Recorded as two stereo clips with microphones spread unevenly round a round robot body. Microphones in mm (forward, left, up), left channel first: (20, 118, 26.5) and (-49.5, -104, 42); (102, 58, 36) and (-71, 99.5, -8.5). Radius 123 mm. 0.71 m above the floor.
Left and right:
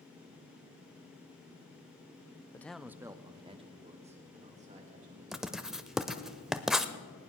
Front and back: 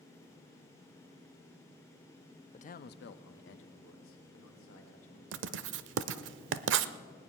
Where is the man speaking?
20° left, 0.5 m; by 6.3 s 45° right, 3.5 m.